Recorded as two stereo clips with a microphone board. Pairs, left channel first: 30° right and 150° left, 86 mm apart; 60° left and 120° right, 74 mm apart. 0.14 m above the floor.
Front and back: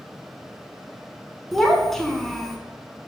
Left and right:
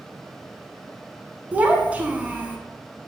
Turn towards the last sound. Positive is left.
turn(degrees=-110)